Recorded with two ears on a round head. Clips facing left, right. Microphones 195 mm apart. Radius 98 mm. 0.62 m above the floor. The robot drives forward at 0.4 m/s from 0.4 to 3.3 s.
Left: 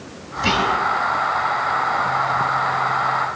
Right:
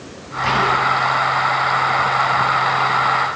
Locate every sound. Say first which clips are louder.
0.4 s whispering: right 1 dB; 70° left (ahead or behind), 4 m; by 0.8 s 65° left (ahead or behind), 4 m